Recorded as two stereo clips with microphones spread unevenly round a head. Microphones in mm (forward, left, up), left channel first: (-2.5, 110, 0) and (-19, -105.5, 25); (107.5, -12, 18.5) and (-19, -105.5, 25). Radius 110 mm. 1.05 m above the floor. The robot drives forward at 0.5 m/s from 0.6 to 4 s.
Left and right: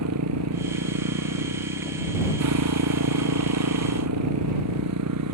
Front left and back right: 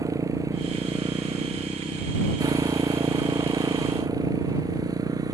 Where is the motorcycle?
75° right.